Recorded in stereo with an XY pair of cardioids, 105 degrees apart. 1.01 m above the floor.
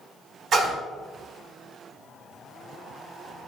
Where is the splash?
55° right, 1.5 m.